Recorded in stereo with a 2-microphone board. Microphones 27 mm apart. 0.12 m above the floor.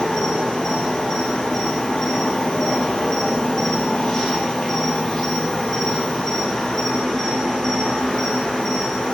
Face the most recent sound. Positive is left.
turn(degrees=40)  # may be behind; listen again after turning